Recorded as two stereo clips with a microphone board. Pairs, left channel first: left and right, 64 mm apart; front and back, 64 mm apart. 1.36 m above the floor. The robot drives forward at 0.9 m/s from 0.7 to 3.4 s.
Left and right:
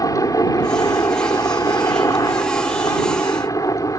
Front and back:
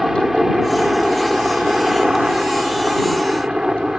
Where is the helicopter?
95° left; by 4.0 s 100° left.